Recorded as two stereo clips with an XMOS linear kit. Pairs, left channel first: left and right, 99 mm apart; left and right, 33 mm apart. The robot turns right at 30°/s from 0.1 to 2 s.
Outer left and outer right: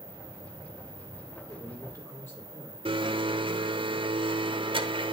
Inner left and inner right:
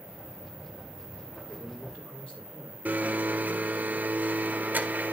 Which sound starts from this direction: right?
A blender, at 2.9 s.